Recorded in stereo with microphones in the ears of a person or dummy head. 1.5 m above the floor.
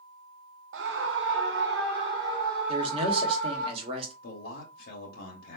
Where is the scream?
60° right (ahead or behind), 0.5 m; by 3.7 s 55° right (ahead or behind), 2.5 m.